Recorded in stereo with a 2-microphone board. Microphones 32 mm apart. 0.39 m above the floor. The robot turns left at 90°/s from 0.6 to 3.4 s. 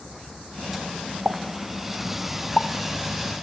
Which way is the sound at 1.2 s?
70° right (ahead or behind).